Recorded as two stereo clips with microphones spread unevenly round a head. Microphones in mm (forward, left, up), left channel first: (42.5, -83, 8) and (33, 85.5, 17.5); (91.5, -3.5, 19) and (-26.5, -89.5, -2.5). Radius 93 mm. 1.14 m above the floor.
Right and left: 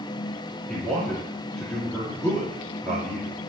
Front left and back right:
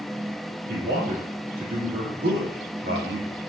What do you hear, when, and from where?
0.7 s a man speaking: 175° right, 3 m